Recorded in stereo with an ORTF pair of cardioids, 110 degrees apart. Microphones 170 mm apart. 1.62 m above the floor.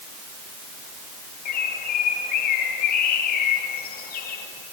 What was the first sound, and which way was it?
A bird, 65° left.